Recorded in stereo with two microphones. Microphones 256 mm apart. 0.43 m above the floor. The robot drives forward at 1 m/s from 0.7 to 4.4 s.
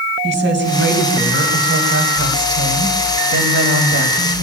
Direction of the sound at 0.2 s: 40° right (ahead or behind).